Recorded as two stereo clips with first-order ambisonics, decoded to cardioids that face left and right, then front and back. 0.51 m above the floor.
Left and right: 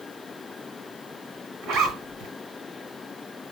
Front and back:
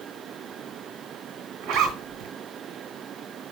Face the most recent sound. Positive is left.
turn(degrees=-140)